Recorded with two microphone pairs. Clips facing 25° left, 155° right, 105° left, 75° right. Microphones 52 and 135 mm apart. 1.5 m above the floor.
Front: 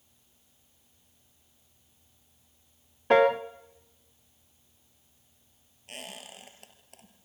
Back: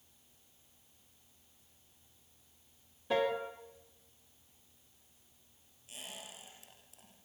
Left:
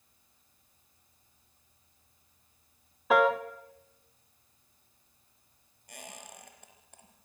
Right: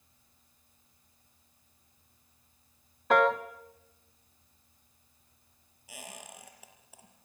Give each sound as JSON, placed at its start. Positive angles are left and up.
{"t": 3.1, "sound": "a piano", "azimuth_deg": 20, "distance_m": 1.0}
{"t": 5.9, "sound": "a squeak", "azimuth_deg": 10, "distance_m": 4.0}